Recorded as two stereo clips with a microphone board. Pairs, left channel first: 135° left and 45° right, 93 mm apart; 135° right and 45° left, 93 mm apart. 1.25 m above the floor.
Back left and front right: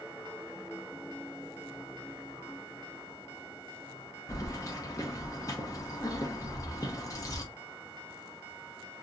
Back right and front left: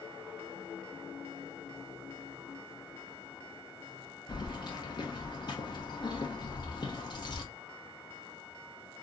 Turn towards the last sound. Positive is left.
turn(degrees=-170)